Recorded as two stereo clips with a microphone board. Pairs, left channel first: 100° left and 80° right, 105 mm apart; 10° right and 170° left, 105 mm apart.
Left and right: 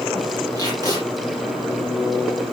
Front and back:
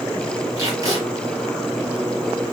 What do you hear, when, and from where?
0.6 s tape being pulled: 130° right, 5 m